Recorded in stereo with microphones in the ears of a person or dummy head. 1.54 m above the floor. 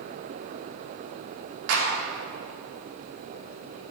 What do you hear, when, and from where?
1.7 s a clap: 75° right (ahead or behind), 2.5 m